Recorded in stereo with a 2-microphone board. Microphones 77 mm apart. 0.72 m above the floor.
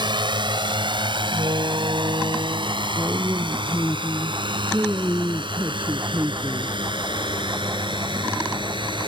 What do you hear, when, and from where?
0.0 s a drone: 75° right (ahead or behind)
1.3 s a door slam: 60° right (ahead or behind)
3.0 s a woman speaking: 25° right (ahead or behind)